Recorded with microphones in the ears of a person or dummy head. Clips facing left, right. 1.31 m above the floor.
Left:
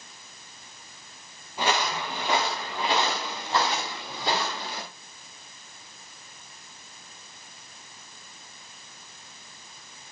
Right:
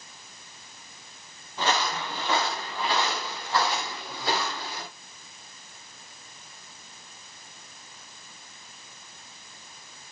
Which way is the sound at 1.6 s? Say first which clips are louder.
Left 1 dB; 15° left (ahead or behind).